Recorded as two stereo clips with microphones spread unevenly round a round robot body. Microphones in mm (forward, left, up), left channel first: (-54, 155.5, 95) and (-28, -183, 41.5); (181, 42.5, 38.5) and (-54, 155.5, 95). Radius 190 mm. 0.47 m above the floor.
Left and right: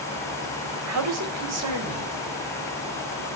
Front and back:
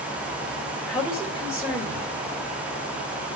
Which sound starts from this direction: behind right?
A man speaking, at 0.9 s.